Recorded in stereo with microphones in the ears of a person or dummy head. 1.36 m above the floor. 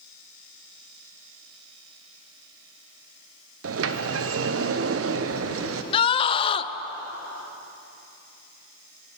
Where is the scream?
30° left (ahead or behind), 0.5 m.